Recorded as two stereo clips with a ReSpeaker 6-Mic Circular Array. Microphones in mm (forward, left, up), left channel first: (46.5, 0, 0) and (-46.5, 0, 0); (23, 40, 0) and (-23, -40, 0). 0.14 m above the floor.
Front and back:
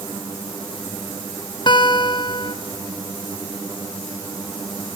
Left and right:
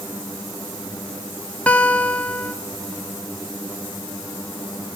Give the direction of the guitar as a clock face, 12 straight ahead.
12 o'clock.